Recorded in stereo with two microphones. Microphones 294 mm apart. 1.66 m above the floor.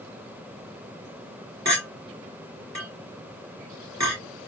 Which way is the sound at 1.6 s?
60° right (ahead or behind).